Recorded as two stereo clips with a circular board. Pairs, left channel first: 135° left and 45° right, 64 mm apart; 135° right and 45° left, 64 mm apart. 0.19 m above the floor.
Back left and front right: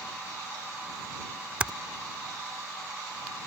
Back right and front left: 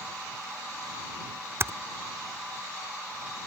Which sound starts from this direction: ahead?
Typing on a keyboard, at 1.6 s.